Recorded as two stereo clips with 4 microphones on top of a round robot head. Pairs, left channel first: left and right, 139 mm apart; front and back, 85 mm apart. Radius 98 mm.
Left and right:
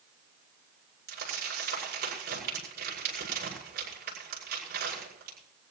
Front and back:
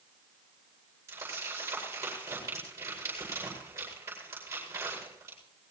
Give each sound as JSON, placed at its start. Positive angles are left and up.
{"t": 1.1, "sound": "crumpling", "azimuth_deg": -110, "distance_m": 8.5}